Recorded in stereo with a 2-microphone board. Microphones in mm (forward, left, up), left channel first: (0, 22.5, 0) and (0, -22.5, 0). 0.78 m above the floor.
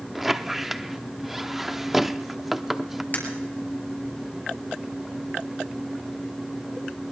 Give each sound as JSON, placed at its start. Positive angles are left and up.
{"t": 0.1, "sound": "a squeak", "side_deg": -5, "distance_m": 0.5}
{"t": 3.1, "sound": "breaking glass", "side_deg": 45, "distance_m": 3.5}